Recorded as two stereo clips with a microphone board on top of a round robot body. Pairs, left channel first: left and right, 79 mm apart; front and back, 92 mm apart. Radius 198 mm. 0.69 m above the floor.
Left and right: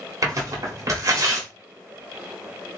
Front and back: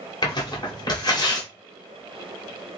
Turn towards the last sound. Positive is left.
turn(degrees=-40)